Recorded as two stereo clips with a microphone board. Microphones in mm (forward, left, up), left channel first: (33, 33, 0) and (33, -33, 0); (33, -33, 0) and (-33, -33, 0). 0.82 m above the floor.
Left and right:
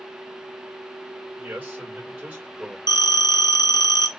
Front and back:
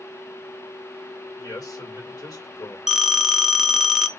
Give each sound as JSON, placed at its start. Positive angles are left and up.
{"t": 1.4, "sound": "a man speaking", "azimuth_deg": -25, "distance_m": 3.0}
{"t": 2.9, "sound": "a phone ringing", "azimuth_deg": 95, "distance_m": 0.6}